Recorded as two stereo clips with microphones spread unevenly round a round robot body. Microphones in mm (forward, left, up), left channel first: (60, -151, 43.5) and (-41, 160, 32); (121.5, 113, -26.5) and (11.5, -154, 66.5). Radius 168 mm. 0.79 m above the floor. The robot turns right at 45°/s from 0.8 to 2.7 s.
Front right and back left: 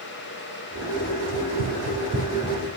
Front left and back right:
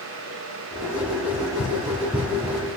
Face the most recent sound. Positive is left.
turn(degrees=-150)